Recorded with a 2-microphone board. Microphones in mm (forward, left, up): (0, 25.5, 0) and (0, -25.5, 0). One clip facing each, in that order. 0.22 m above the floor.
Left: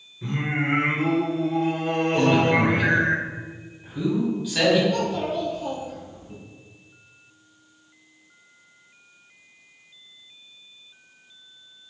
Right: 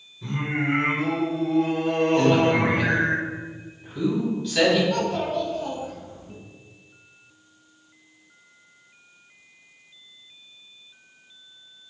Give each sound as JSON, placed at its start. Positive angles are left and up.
{"t": 0.2, "sound": "singing", "side_deg": 30, "distance_m": 0.9}
{"t": 2.2, "sound": "a man speaking", "side_deg": 10, "distance_m": 1.2}
{"t": 4.9, "sound": "a child speaking", "side_deg": -60, "distance_m": 1.2}